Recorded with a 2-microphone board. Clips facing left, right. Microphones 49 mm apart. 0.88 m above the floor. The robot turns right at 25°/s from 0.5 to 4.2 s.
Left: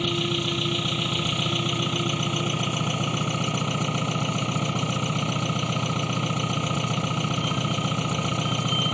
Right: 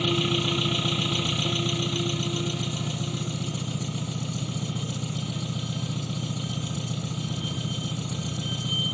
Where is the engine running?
Straight ahead; by 8.9 s 90° left.